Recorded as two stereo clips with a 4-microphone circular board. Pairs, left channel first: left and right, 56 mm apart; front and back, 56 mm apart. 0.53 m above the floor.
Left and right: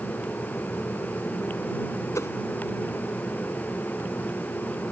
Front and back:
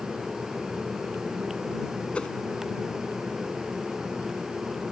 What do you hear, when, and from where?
2.1 s a whoosh: 70° left